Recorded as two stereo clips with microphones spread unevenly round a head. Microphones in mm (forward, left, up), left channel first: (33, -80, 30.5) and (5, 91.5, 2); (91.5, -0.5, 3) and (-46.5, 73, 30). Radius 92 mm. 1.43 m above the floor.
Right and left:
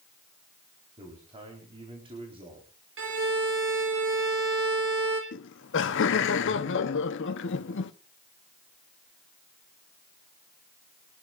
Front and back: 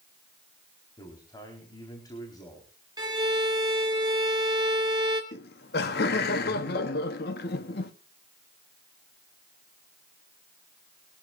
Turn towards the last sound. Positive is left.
turn(degrees=-65)